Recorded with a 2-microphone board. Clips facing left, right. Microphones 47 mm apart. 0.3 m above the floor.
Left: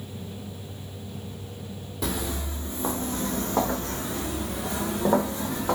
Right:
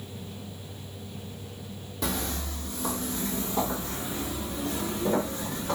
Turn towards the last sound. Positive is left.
turn(degrees=85)